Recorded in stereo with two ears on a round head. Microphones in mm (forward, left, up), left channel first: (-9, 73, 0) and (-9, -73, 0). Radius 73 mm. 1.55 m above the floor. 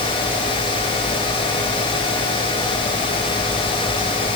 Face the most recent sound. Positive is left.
No sound to turn to.